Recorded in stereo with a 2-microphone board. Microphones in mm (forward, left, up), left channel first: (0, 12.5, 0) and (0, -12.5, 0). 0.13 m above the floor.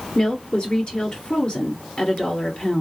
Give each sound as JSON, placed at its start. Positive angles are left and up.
{"t": 0.1, "sound": "a woman speaking", "side_deg": 40, "distance_m": 1.6}